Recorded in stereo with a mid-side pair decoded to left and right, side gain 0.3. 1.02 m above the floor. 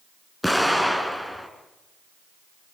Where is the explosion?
10° left, 5.5 m.